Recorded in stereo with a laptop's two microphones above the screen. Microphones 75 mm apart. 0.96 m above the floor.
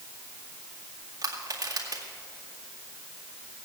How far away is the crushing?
About 2 m.